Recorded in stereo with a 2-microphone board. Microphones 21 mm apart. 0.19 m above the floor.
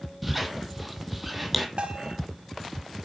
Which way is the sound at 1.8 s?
65° right (ahead or behind).